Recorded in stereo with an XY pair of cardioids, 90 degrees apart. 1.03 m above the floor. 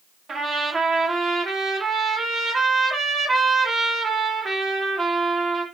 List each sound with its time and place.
0.3 s a trumpet: 55° right, 0.8 m